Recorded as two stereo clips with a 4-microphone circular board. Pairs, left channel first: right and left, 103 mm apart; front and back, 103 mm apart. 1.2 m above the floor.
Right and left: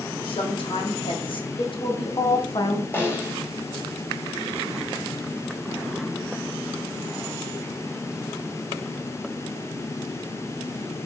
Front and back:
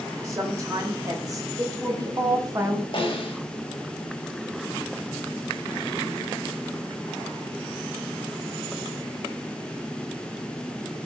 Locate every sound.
0.2 s a woman speaking: 125° right, 2.5 m; by 2.8 s 130° right, 1.0 m
2.9 s a snare drum: 25° right, 1.8 m